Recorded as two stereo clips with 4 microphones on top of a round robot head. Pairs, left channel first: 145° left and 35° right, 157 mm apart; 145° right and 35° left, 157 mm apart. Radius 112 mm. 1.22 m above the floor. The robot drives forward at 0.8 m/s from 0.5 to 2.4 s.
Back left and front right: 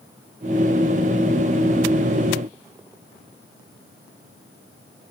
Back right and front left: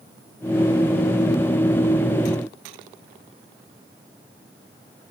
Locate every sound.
Only background noise.